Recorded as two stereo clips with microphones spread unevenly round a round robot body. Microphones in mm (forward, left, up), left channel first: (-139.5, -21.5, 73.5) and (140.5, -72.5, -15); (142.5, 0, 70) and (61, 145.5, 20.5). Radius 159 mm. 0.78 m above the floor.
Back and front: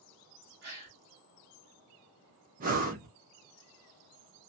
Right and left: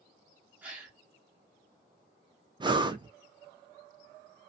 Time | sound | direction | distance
0.6 | a gasp | 40° left | 1.3 m
2.6 | breathing | 55° left | 0.7 m